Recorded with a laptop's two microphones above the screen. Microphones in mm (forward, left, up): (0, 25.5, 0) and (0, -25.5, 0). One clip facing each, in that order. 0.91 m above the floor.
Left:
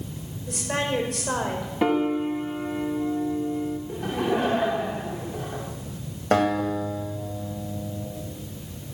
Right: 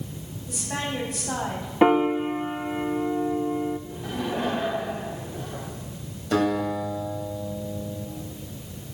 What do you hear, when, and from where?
0.5 s a woman speaking: 80° left, 4 m
1.8 s a piano: 25° right (ahead or behind), 0.9 m
3.9 s laughter: 70° left (ahead or behind), 3 m
6.3 s a guitar: 55° left (ahead or behind), 2.5 m